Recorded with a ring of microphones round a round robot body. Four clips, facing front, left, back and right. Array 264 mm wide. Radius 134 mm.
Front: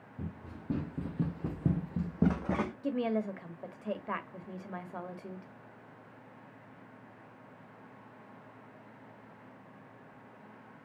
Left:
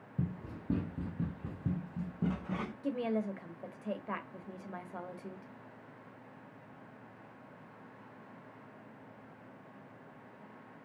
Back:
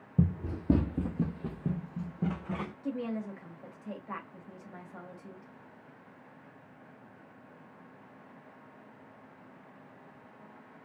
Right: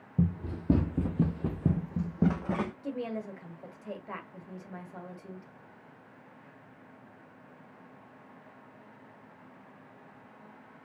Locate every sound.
0.2 s running footsteps: 155° right, 0.8 m; by 2.7 s 40° right, 1.2 m
2.8 s a woman speaking: 15° left, 1.1 m